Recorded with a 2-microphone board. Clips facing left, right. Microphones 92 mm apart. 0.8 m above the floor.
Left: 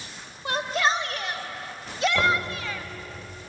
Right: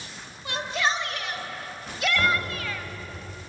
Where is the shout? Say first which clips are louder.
Left 3 dB; 40° left (ahead or behind), 3 m; by 2.9 s 15° left (ahead or behind), 1.4 m.